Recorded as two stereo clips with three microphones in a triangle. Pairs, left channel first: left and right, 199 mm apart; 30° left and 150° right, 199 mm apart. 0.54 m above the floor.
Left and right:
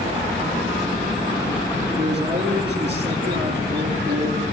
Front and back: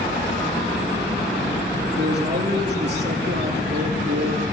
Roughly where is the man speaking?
Behind right.